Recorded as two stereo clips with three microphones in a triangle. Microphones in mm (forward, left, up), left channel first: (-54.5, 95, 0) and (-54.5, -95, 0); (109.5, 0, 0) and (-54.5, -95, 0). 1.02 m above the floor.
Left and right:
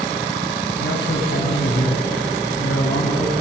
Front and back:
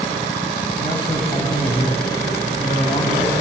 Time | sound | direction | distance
0.8 | a man speaking | 95° left | 6 m